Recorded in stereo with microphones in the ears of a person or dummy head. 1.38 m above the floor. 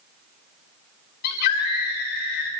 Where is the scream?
55° left (ahead or behind), 4.5 m.